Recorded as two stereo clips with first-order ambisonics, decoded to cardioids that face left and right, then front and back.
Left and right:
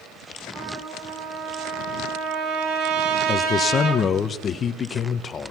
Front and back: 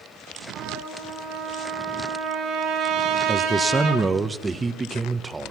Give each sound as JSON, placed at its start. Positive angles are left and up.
{"t": 0.5, "sound": "a trumpet", "azimuth_deg": -130, "distance_m": 5.0}
{"t": 3.3, "sound": "a man speaking", "azimuth_deg": 115, "distance_m": 0.8}